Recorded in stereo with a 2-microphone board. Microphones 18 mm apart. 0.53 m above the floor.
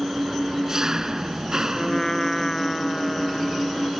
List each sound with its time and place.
0.0 s an engine running: 35° right (ahead or behind)
1.8 s a trumpet: 25° left (ahead or behind)